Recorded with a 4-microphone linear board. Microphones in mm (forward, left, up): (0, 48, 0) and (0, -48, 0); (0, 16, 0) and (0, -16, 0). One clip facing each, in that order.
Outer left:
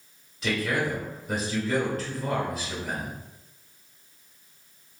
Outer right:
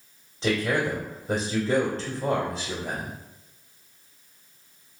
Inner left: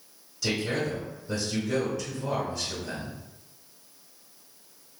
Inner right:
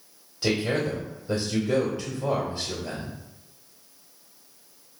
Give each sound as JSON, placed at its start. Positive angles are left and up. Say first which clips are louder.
{"t": 0.4, "sound": "a man speaking", "louder": "outer right 2 dB, inner right 3 dB", "side_deg": -30, "distance_m": 1.6}